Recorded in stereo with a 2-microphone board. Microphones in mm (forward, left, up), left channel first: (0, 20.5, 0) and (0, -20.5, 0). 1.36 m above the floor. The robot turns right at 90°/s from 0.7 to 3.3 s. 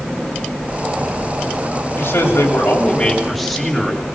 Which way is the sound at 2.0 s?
65° left.